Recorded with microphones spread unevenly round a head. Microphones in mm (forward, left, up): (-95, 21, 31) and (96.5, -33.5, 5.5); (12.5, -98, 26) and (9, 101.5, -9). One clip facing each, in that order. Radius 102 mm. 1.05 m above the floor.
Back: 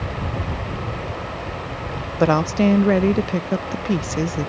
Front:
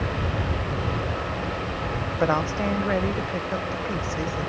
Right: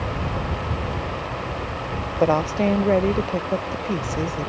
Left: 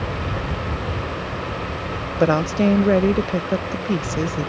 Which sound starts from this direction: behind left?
A woman speaking, at 2.2 s.